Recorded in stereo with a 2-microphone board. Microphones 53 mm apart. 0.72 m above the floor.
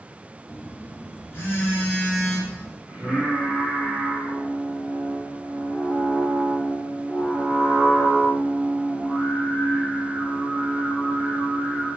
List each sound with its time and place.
0.5 s a phone buzzing: 50° left (ahead or behind), 1.6 m
2.9 s singing: 15° right (ahead or behind), 1.5 m